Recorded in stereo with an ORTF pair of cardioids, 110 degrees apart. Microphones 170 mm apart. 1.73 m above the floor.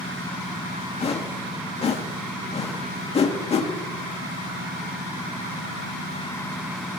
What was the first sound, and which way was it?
A whoosh, 35° left.